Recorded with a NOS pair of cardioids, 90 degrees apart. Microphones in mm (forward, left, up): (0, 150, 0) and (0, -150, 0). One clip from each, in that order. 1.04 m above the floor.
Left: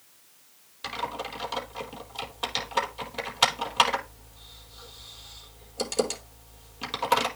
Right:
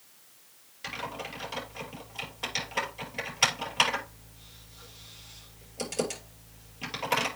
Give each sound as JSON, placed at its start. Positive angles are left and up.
{"t": 0.8, "sound": "typing on a keyboard", "azimuth_deg": 30, "distance_m": 5.0}